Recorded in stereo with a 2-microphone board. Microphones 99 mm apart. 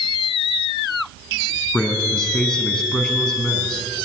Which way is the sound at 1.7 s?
5° left (ahead or behind).